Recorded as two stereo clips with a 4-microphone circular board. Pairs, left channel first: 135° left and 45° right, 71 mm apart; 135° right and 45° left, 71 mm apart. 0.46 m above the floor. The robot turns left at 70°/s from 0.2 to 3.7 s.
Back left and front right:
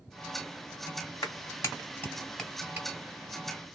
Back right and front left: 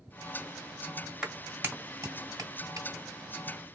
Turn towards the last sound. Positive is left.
turn(degrees=-45)